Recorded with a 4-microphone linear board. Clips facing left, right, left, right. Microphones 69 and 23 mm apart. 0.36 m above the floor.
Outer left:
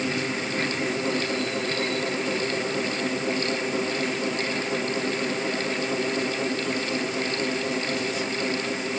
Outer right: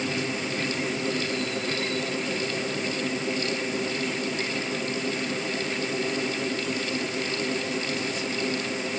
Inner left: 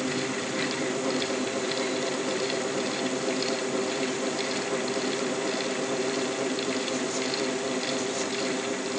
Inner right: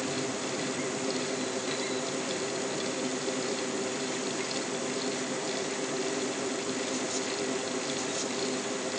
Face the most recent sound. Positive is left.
No sound to turn to.